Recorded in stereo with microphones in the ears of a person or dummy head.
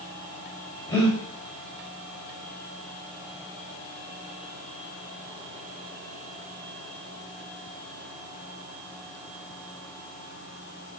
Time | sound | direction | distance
0.9 | breathing | 25° left (ahead or behind) | 5 m